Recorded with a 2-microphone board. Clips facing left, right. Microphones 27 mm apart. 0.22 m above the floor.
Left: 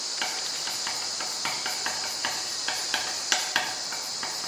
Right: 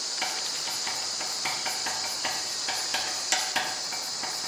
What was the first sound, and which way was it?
Writing, 35° left (ahead or behind).